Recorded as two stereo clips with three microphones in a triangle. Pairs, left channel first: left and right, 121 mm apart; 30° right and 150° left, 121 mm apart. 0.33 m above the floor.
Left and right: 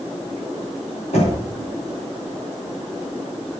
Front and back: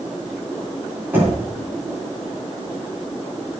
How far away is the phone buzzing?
I don't hear a phone buzzing.